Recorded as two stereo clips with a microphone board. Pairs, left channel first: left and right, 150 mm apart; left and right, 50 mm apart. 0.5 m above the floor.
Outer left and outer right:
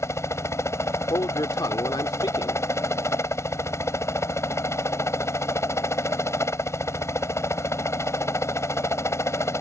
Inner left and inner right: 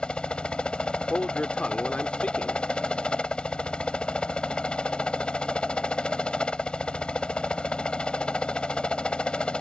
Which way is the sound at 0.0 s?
20° left (ahead or behind).